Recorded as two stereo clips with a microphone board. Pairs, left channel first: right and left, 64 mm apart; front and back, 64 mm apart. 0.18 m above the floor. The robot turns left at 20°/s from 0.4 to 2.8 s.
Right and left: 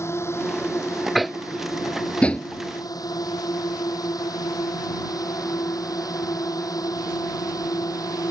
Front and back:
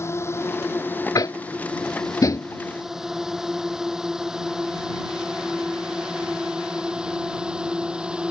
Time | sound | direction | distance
0.0 | a drone | 45° right | ?
1.1 | tapping | straight ahead | ?